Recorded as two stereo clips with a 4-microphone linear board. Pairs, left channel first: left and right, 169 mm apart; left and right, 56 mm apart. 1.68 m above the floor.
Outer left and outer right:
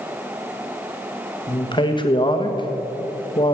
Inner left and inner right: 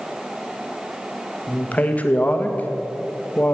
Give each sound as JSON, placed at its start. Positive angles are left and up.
{"t": 1.5, "sound": "a man speaking", "side_deg": 30, "distance_m": 1.5}